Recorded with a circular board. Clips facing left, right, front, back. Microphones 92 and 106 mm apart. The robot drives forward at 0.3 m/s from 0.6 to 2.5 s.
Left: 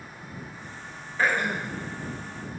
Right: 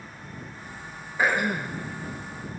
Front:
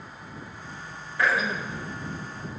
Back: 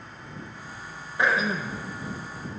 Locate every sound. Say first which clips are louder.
1.2 s throat clearing: right 1 dB, back 1 dB; 145° right, 0.6 m; by 1.8 s 160° right, 0.7 m